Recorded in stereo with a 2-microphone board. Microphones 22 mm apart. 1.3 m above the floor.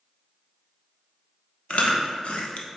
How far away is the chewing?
About 0.8 m.